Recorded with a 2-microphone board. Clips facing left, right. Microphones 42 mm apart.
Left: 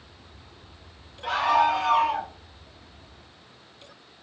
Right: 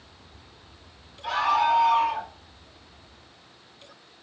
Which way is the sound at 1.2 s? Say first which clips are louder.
Left 1 dB; 40° left (ahead or behind).